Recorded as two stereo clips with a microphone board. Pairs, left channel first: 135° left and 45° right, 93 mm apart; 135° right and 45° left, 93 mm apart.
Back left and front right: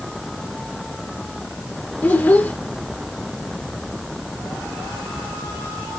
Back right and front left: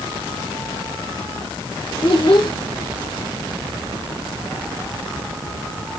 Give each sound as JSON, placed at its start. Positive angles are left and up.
{"t": 2.0, "sound": "a child speaking", "azimuth_deg": -155, "distance_m": 1.1}